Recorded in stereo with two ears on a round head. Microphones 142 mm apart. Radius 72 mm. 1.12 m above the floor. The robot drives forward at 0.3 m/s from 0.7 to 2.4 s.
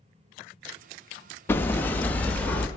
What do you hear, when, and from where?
1.5 s hammering: 15° left (ahead or behind), 0.5 m; by 2.7 s 10° left (ahead or behind), 0.7 m